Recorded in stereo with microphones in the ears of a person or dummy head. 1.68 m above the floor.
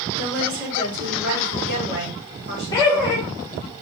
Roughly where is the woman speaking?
Right.